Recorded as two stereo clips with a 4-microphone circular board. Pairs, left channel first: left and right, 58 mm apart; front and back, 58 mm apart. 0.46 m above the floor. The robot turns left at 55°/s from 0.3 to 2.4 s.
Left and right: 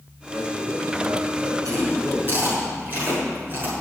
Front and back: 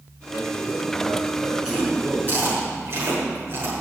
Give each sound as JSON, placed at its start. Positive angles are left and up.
{"t": 0.3, "sound": "a man speaking", "azimuth_deg": -55, "distance_m": 6.0}
{"t": 1.6, "sound": "chewing", "azimuth_deg": -100, "distance_m": 6.0}